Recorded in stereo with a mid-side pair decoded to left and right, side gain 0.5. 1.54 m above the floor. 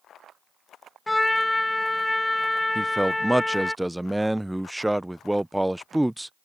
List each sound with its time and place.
1.1 s a trumpet: 10° left
2.8 s a man speaking: 5° right